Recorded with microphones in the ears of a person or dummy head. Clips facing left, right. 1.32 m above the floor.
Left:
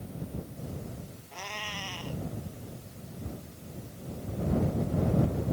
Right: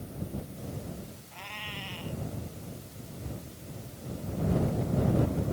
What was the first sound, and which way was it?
A cat meowing, 55° left (ahead or behind).